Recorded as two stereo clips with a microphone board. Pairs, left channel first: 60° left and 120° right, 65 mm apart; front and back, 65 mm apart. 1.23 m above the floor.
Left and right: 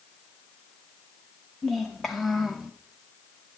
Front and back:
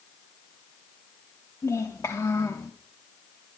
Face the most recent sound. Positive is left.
turn(degrees=-35)